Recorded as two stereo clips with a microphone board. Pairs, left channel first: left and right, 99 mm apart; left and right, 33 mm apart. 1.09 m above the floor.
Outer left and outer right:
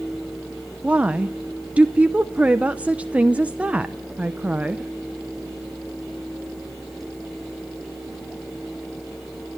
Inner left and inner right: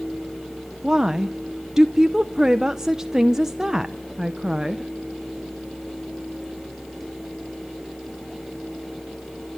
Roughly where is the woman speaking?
Centre.